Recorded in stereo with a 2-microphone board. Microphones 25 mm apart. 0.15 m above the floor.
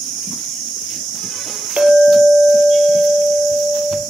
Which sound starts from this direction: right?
A clink, at 1.8 s.